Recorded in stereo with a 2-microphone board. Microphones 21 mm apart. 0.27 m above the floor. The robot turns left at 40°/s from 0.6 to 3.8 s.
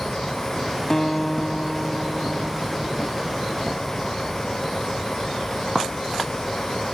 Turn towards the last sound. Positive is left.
turn(degrees=-85)